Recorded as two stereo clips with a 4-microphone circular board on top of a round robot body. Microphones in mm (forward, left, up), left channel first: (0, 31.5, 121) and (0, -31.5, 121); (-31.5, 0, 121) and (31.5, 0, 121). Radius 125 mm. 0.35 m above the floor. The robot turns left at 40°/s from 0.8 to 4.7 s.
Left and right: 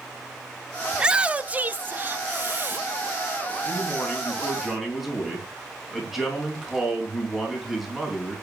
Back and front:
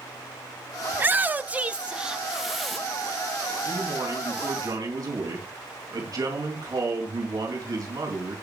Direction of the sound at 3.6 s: 40° left.